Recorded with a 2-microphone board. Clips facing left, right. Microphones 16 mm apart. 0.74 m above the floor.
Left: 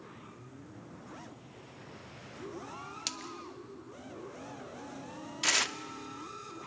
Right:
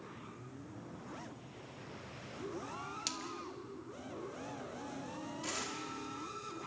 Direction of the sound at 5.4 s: 80° left.